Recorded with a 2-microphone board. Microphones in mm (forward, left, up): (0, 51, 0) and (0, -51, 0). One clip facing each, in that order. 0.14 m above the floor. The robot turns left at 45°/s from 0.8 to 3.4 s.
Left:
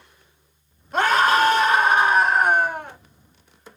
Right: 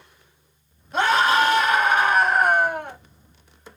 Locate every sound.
0.9 s a scream: 95° left, 2 m; by 3.0 s 5° left, 2 m